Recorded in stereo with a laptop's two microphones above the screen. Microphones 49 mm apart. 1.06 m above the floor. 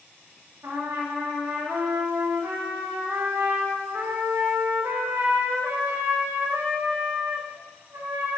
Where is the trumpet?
80° right, 1.2 m.